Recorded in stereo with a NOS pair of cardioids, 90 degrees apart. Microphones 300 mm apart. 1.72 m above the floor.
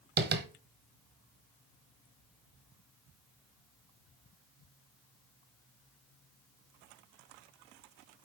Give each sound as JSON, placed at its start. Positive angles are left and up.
{"t": 0.2, "sound": "tapping", "azimuth_deg": -35, "distance_m": 1.1}